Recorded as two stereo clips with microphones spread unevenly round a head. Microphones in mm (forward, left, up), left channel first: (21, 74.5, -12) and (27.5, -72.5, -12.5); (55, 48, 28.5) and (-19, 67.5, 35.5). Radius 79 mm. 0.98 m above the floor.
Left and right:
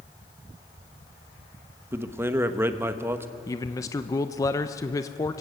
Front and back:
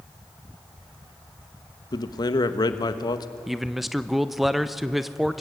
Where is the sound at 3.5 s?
65° left, 0.6 m.